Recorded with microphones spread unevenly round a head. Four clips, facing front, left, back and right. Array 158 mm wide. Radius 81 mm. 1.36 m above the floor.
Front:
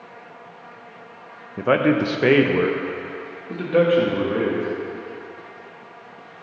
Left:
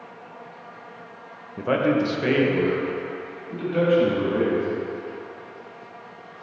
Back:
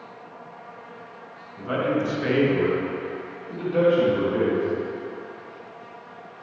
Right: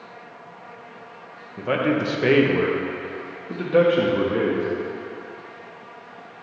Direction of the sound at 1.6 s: 10° left.